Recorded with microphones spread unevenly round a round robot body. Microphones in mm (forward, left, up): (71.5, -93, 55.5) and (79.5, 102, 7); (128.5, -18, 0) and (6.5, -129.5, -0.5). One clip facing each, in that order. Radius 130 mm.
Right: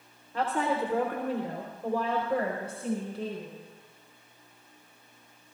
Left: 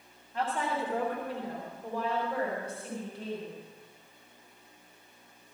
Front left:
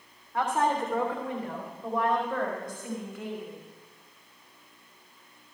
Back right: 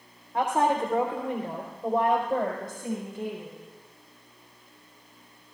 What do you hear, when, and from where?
0.3 s a woman speaking: 70° right, 3 m; by 3.6 s 75° right, 5.5 m